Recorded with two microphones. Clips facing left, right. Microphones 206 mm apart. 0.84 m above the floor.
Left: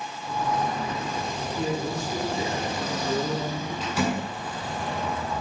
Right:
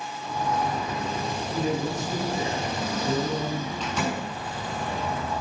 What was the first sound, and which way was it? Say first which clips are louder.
A man speaking: right 1 dB; 50° right (ahead or behind).